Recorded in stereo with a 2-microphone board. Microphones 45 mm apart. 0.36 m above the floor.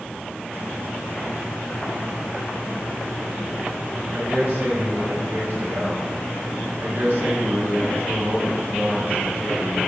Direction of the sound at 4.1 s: 60° right (ahead or behind).